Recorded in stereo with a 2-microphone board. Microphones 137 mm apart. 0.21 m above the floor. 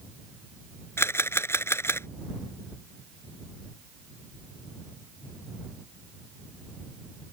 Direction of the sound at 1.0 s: 20° left (ahead or behind).